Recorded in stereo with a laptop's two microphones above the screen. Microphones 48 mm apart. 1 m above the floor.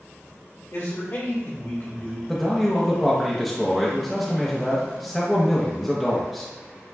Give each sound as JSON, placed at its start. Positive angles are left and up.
{"t": 0.7, "sound": "a man speaking", "side_deg": 65, "distance_m": 1.4}
{"t": 2.3, "sound": "a man speaking", "side_deg": 0, "distance_m": 0.6}